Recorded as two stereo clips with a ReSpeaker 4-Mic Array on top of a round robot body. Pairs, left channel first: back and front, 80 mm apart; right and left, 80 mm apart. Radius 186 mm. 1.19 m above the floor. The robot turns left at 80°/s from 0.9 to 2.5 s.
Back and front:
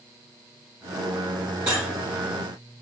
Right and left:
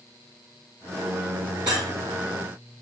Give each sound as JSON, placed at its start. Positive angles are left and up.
{"t": 1.7, "sound": "cutlery clinking", "azimuth_deg": 65, "distance_m": 0.6}